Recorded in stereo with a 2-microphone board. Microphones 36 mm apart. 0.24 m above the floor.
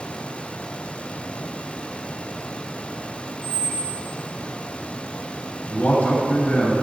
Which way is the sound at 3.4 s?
80° left.